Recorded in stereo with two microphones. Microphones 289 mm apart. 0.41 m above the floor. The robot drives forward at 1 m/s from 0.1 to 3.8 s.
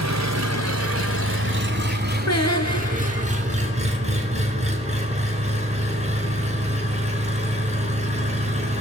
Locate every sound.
0.0 s an engine running: 65° right (ahead or behind), 1.8 m; by 8.8 s 25° right (ahead or behind), 4.5 m
2.3 s singing: 60° left (ahead or behind), 2 m; by 3.3 s 85° left, 1.9 m